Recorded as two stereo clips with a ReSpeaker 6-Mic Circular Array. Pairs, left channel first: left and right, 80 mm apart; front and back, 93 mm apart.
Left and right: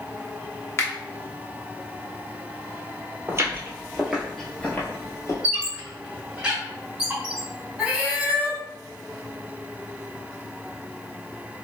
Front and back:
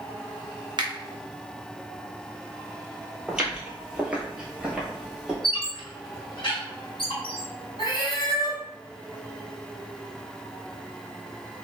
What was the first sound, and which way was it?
A finger snap, 145° left.